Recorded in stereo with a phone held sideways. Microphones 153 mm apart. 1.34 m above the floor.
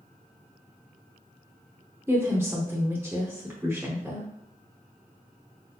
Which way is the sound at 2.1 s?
15° right (ahead or behind).